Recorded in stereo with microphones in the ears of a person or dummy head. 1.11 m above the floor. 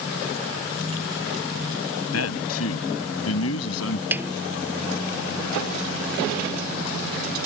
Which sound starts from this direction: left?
A man speaking, at 2.1 s.